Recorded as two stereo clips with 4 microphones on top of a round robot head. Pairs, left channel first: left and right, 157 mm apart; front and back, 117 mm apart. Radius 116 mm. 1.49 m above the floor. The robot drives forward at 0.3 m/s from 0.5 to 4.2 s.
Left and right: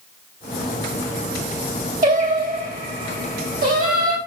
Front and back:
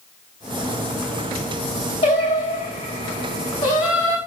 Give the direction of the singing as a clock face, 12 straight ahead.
2 o'clock.